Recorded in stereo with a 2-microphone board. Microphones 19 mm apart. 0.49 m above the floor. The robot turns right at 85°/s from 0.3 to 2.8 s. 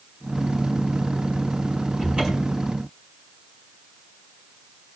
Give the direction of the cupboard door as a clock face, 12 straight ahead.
4 o'clock.